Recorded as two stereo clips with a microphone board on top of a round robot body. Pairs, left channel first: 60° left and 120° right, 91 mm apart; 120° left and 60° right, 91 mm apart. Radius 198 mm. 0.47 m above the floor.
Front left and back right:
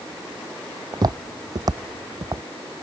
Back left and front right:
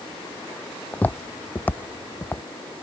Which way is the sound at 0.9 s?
165° right.